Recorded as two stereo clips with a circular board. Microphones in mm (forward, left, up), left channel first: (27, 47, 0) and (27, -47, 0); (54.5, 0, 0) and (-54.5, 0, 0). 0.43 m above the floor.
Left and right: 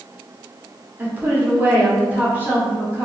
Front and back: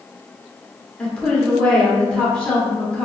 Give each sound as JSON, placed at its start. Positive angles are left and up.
{"t": 1.0, "sound": "a woman speaking", "azimuth_deg": -60, "distance_m": 0.8}